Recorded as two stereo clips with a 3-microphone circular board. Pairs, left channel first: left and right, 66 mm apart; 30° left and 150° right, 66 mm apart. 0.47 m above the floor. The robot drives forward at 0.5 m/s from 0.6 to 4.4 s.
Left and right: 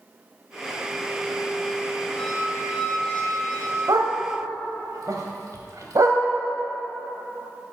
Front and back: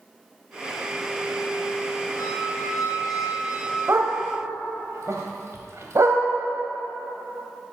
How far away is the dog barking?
About 1.0 m.